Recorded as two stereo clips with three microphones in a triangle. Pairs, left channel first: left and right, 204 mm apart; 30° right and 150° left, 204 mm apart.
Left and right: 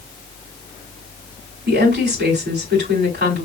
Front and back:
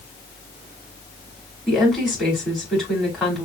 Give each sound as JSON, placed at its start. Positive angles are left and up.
{"t": 1.7, "sound": "a woman speaking", "azimuth_deg": -120, "distance_m": 5.0}